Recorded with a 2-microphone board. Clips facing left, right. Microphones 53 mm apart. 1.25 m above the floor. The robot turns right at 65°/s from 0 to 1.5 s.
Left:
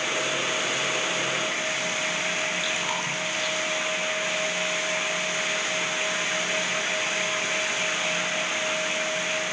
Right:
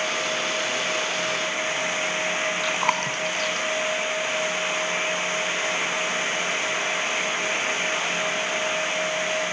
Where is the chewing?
55° right (ahead or behind), 3.5 m.